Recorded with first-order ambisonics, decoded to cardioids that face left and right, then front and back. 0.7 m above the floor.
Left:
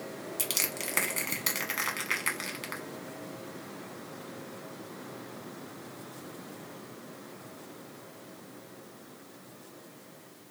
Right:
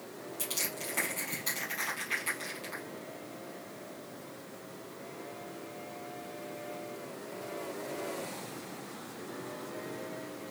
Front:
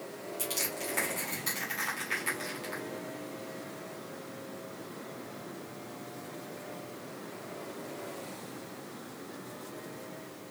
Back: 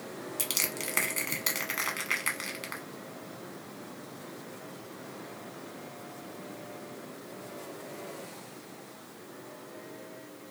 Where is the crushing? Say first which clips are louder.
Left 4 dB, back 3 dB; 125° left, 1.1 m.